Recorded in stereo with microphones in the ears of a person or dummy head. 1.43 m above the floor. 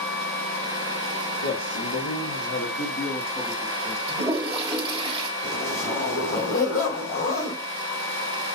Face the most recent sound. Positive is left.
turn(degrees=50)  # may be behind; listen again after turning